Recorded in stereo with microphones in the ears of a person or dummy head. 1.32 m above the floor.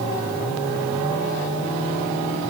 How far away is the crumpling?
I don't hear crumpling.